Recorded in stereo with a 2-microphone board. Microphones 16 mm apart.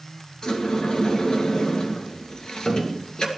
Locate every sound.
0.4 s a sliding door: 45° left (ahead or behind), 2.5 m